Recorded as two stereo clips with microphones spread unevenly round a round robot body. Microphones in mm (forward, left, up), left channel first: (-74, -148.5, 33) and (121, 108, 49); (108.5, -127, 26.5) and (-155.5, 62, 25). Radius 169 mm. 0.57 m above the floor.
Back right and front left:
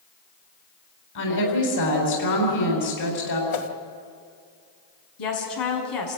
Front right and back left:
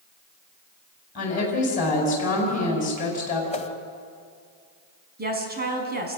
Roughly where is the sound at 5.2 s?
Behind right.